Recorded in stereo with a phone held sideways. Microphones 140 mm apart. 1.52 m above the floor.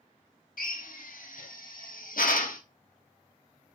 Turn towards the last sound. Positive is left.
turn(degrees=85)